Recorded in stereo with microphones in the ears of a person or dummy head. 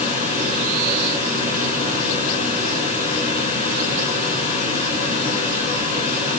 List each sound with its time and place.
0.0 s a fan: 40° left (ahead or behind), 3.5 m